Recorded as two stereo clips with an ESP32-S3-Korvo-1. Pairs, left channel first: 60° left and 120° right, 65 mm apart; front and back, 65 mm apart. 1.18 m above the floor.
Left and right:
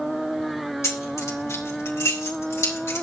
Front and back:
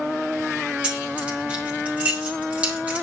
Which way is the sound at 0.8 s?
105° left.